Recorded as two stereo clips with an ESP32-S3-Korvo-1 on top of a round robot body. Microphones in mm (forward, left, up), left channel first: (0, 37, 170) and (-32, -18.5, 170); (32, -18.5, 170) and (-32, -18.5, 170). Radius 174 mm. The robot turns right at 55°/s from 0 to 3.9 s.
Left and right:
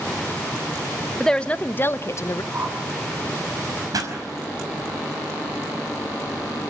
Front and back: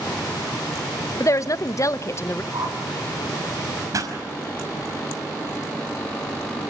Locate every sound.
1.2 s a woman speaking: 20° right, 0.8 m; by 2.4 s 45° left, 0.8 m
2.5 s a whoosh: 175° right, 4 m; by 2.8 s 165° right, 4 m
3.9 s a pop: 145° right, 5.5 m